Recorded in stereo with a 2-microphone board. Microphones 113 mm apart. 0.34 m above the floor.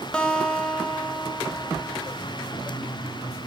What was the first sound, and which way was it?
A guitar, 10° left (ahead or behind).